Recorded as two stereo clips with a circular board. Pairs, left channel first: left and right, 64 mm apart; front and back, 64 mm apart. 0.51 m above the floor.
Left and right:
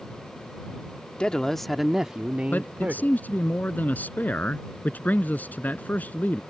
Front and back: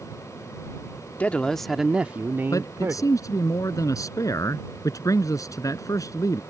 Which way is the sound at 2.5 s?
30° left.